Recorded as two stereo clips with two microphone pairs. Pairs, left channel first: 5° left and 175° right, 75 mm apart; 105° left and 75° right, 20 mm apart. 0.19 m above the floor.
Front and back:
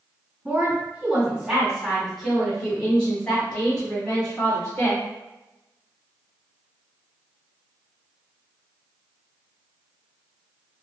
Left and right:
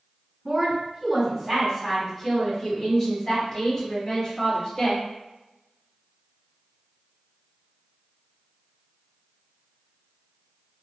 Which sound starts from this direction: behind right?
A woman speaking, at 0.5 s.